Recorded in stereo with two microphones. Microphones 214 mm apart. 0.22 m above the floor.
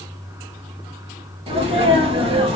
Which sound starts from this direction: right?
A sneeze, at 1.5 s.